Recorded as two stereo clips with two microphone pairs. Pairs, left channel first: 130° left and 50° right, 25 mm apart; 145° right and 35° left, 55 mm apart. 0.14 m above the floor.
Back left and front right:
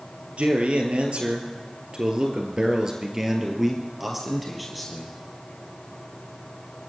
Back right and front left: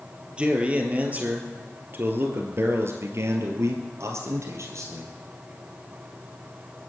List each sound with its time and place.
0.4 s a man speaking: 30° right, 3 m; by 5.1 s 45° left, 3 m